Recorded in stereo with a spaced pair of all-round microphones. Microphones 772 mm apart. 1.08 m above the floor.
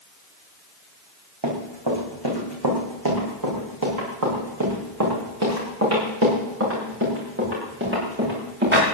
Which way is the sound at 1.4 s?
30° right (ahead or behind).